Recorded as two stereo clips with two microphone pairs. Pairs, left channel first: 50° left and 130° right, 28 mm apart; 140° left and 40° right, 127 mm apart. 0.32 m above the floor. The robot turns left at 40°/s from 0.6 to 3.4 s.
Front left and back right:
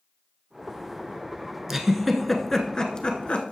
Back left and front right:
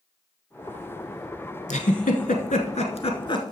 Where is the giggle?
155° left, 1.0 m; by 3.5 s 85° left, 1.0 m.